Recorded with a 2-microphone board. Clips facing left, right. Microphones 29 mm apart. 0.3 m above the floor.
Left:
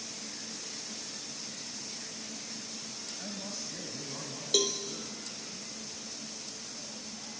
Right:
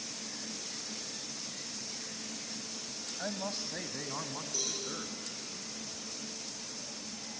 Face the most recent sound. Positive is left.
turn(degrees=70)  # may be behind; listen again after turning